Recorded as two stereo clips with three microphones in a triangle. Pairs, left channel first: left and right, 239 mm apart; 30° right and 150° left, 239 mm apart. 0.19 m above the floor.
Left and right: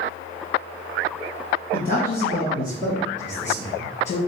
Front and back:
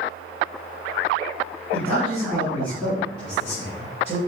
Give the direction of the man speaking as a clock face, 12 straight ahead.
9 o'clock.